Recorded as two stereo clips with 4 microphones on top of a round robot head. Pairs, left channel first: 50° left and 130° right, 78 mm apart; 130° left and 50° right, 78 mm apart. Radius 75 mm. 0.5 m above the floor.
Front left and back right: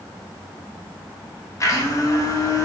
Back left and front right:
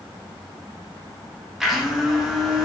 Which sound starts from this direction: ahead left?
A blender, at 1.6 s.